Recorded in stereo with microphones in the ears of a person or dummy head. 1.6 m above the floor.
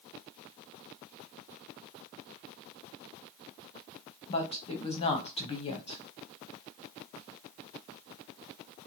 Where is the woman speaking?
30° left (ahead or behind), 0.7 m.